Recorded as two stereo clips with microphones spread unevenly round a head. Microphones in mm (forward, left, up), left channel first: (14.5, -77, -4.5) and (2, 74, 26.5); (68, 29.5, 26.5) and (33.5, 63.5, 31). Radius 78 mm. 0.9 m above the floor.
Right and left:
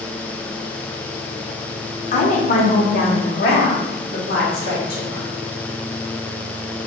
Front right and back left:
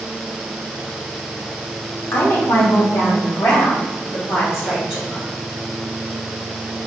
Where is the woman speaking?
60° right, 0.7 m; by 5.3 s 110° right, 3 m.